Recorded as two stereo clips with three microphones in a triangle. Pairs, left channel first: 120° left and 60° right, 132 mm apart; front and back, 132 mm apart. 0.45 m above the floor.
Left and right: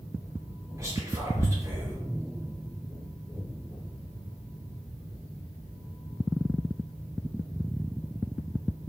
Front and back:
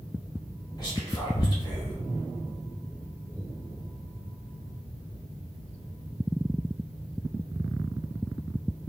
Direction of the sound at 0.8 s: 15° right.